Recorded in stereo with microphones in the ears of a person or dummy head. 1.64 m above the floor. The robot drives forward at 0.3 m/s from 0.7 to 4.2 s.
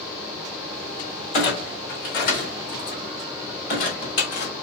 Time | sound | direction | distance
1.3 | a clunk | 45° left (ahead or behind) | 1.6 m